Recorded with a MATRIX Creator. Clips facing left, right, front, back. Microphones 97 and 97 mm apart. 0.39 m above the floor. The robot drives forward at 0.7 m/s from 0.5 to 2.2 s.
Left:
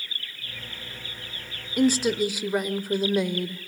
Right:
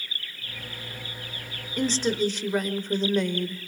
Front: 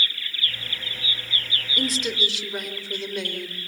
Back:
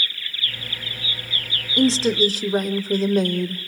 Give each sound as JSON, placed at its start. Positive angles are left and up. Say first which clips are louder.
{"t": 1.8, "sound": "a woman speaking", "louder": "left 3 dB, back 10 dB", "azimuth_deg": 155, "distance_m": 0.9}